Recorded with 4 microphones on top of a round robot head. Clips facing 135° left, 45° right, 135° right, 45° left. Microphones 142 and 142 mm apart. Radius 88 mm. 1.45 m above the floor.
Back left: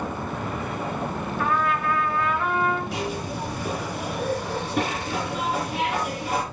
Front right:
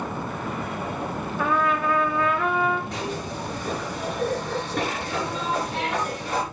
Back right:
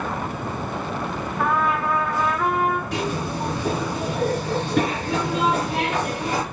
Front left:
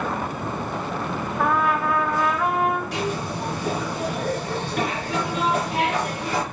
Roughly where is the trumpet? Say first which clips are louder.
Front right 1 dB, even; ahead right.